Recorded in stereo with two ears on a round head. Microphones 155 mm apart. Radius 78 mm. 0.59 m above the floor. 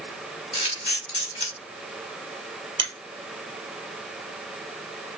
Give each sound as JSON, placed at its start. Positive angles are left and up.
{"t": 0.5, "sound": "a camera shutter", "side_deg": 40, "distance_m": 2.0}
{"t": 2.8, "sound": "a finger snap", "side_deg": -30, "distance_m": 2.5}